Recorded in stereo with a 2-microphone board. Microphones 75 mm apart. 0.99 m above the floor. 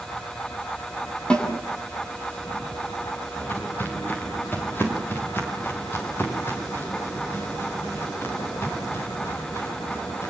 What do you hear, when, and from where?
1.3 s a snare drum: 15° left (ahead or behind), 6.5 m
3.4 s footsteps: 25° left (ahead or behind), 7 m; by 10.3 s 35° left (ahead or behind), 13 m